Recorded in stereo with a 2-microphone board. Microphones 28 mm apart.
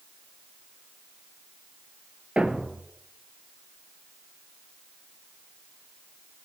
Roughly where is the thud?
Right.